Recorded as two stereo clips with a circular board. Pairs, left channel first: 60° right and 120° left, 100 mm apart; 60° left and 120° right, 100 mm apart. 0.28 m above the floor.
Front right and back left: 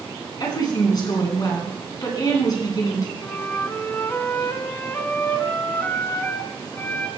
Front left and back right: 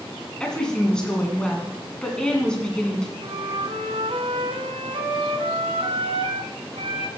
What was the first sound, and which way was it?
A woman speaking, 20° right.